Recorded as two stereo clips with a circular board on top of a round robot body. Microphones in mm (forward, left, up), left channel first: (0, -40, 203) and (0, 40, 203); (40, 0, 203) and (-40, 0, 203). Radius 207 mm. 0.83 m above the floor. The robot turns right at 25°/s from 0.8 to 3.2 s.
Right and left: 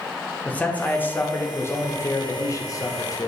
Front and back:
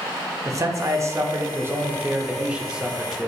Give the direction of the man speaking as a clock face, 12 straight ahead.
5 o'clock.